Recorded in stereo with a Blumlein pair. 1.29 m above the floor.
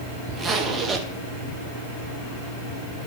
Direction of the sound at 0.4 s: 20° right.